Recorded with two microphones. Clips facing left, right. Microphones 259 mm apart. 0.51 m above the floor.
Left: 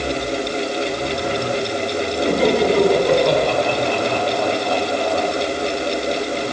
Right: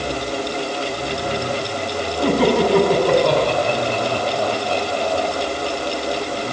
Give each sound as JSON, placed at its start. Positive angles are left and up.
{"t": 2.2, "sound": "laughter", "side_deg": -70, "distance_m": 5.5}